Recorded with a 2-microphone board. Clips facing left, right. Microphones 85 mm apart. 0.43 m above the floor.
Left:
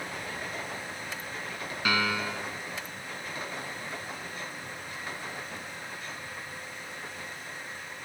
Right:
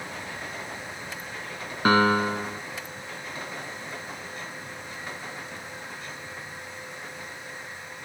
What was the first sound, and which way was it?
A piano, 40° right (ahead or behind).